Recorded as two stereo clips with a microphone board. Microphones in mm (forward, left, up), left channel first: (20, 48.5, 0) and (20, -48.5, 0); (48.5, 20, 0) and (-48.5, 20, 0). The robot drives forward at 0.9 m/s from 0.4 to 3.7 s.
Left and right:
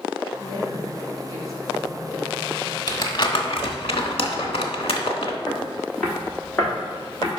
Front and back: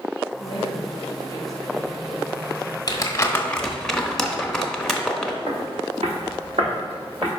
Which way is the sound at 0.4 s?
30° left.